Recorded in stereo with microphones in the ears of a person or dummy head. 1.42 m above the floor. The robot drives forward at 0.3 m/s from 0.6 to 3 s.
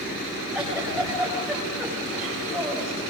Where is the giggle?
10° right (ahead or behind), 7 m; by 3.0 s 5° right (ahead or behind), 8 m.